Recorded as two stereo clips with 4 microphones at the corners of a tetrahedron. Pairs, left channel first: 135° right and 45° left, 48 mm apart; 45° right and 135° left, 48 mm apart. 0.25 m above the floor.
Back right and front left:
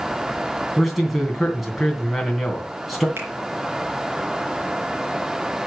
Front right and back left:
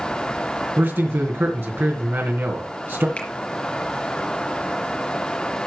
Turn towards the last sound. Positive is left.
turn(degrees=15)